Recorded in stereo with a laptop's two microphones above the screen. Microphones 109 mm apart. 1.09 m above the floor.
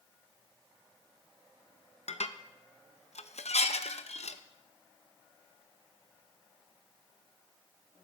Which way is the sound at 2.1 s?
80° left.